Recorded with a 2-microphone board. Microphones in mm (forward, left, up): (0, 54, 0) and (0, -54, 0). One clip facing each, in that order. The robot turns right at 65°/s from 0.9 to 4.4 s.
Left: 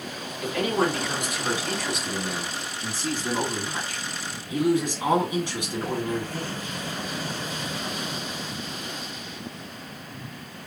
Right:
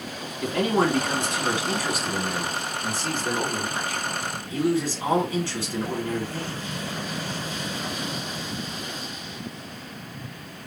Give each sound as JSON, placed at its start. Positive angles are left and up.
{"t": 0.4, "sound": "a man speaking", "azimuth_deg": -75, "distance_m": 2.0}